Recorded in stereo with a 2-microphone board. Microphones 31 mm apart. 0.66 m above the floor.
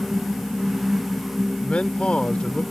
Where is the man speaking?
40° left (ahead or behind).